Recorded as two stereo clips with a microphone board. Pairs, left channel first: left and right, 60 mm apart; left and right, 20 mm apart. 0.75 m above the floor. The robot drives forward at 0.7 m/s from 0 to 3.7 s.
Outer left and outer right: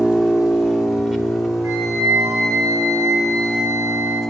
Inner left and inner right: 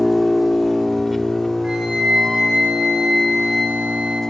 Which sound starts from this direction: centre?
An engine running, at 0.0 s.